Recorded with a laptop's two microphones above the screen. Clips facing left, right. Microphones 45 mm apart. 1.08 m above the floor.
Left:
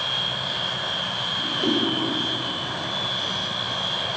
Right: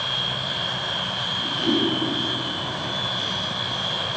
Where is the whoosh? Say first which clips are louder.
Right 1 dB; 85° left, 2.5 m.